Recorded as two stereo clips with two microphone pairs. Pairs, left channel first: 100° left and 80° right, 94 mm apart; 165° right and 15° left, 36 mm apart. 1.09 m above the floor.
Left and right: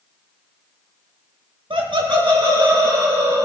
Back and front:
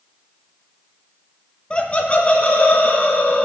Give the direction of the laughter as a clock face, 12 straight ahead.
3 o'clock.